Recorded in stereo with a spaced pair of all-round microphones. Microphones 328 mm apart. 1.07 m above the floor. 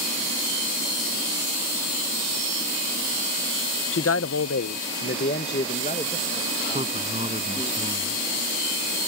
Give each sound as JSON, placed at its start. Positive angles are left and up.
{"t": 3.9, "sound": "a man speaking", "side_deg": 40}
{"t": 6.7, "sound": "a man speaking", "side_deg": -20}